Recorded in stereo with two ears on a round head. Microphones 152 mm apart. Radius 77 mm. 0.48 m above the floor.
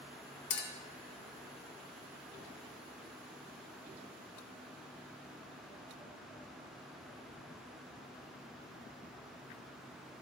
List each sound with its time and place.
0.5 s a clink: 65° left (ahead or behind), 0.9 m